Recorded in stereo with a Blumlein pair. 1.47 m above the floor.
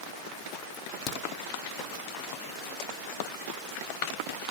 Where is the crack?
40° left, 0.6 m.